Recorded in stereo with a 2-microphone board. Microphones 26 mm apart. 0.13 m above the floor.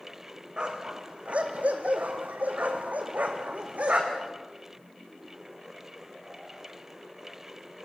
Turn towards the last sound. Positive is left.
turn(degrees=-55)  # may be behind; listen again after turning